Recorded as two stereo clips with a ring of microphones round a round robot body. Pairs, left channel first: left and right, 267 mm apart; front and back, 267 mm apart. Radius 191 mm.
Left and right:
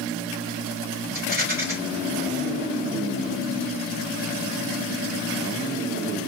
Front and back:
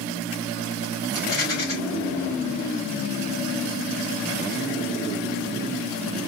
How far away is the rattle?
About 3.5 m.